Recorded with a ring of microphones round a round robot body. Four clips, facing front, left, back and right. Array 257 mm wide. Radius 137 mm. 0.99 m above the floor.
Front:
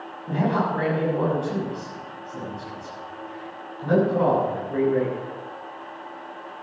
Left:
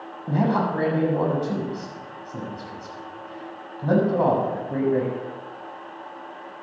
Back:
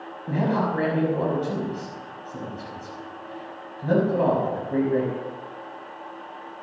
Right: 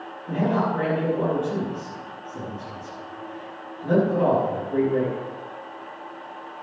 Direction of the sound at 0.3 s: 110° left.